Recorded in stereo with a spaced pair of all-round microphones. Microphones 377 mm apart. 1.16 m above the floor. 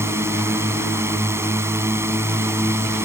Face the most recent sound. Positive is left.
turn(degrees=-5)  # may be behind; listen again after turning